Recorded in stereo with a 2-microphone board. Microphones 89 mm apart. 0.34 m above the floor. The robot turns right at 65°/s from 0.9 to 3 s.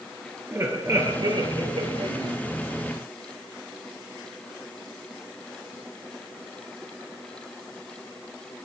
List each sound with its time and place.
0.5 s laughter: 145° right, 6.5 m; by 2.4 s 55° right, 6.5 m